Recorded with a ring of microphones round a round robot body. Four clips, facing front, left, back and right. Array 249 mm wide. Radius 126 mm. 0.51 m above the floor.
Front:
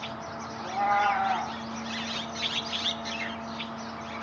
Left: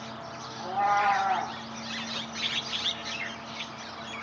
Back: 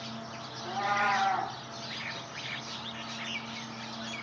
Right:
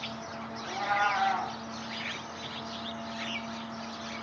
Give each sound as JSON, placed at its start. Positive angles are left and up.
{"t": 0.6, "sound": "a cat meowing", "azimuth_deg": 65, "distance_m": 6.0}